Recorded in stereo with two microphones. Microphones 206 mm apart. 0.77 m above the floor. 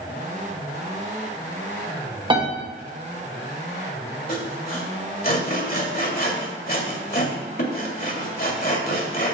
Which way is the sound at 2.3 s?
25° right (ahead or behind).